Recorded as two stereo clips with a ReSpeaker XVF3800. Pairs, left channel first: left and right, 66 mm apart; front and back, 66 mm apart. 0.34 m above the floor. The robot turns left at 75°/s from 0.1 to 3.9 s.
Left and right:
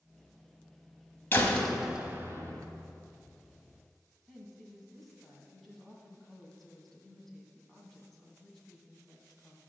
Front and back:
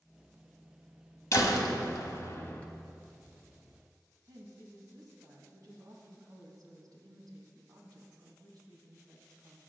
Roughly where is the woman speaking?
Behind.